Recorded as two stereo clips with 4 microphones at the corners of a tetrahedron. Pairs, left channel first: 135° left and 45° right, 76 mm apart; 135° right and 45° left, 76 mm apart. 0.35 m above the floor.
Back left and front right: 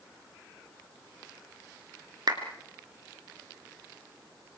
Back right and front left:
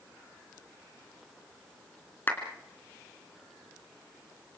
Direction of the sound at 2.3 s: 75° right.